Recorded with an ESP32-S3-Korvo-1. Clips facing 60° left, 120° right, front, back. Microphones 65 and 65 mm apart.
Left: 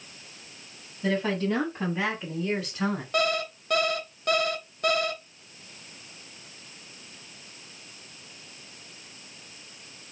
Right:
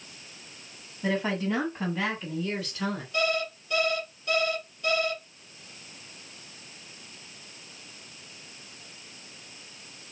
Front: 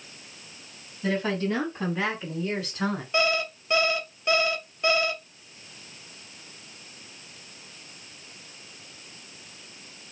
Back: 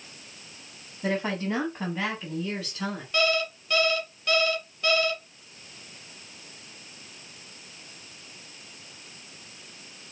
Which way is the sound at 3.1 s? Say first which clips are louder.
Even, back 1 dB; 65° left.